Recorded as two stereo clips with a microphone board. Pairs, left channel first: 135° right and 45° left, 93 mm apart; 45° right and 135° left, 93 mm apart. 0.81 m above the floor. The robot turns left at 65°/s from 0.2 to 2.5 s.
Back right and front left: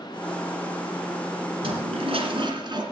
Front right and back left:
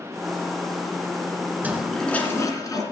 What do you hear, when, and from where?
1.6 s a toilet flushing: 65° left, 2 m; by 2.8 s 5° left, 2 m